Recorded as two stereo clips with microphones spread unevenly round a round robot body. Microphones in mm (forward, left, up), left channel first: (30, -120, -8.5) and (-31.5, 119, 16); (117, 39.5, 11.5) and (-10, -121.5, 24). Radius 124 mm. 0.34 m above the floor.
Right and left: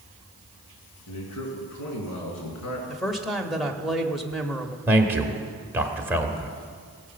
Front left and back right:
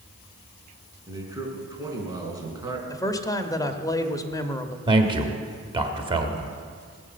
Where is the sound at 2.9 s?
5° left, 1.0 m.